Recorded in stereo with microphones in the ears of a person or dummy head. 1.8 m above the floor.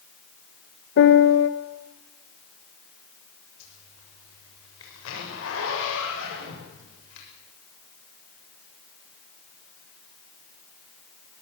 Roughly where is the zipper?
Left.